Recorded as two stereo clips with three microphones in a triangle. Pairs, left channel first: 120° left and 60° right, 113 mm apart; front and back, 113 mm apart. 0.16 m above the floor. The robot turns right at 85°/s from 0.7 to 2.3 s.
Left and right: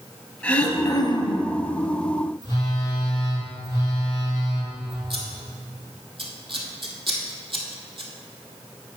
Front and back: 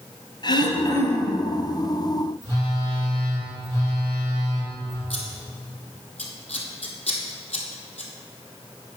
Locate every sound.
0.4 s throat clearing: 40° left, 1.2 m; by 1.5 s 110° left, 1.2 m
2.4 s a phone buzzing: 65° left, 3 m
5.1 s scissors: 20° right, 1.5 m